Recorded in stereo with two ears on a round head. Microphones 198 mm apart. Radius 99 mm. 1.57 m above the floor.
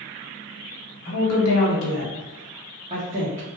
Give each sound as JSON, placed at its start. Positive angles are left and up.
{"t": 1.1, "sound": "a woman speaking", "side_deg": 80, "distance_m": 1.1}